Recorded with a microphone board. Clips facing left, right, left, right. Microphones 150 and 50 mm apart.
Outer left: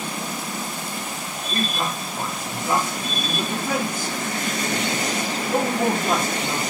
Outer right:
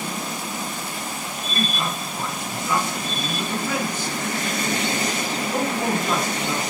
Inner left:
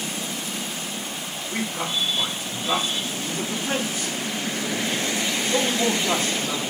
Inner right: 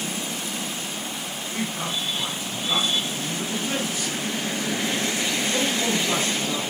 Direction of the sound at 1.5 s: 50° left (ahead or behind).